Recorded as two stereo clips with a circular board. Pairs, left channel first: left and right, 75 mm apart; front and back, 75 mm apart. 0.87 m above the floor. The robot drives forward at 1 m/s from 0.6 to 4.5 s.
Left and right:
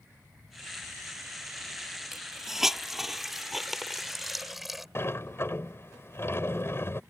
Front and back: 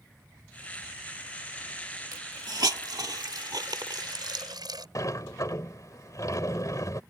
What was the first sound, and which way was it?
A hiss, 175° right.